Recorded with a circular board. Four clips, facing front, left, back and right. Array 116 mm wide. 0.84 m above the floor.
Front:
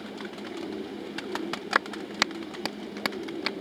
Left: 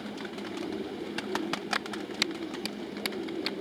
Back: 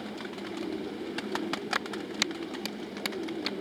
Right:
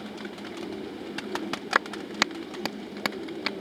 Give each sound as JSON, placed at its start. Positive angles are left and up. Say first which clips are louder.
{"t": 1.8, "sound": "a clap", "louder": "right 7 dB, front 5 dB", "azimuth_deg": -55}